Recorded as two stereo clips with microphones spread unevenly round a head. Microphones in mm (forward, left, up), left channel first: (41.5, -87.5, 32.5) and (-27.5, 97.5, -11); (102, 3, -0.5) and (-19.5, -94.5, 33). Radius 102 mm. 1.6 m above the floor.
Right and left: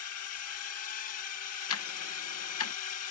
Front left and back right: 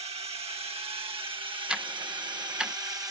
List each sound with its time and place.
0.0 s a drone: 90° right; by 3.1 s 70° right
1.7 s ticking: 55° right